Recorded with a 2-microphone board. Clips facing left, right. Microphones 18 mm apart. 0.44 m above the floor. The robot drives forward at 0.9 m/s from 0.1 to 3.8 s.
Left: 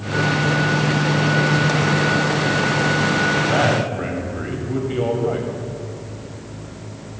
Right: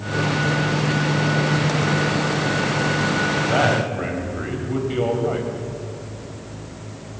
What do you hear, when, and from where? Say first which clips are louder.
3.4 s a man speaking: left 1 dB; 5° right (ahead or behind), 2.5 m